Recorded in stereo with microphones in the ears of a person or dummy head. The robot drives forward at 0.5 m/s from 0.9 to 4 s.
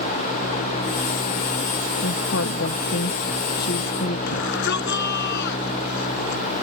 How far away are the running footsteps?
I don't hear running footsteps.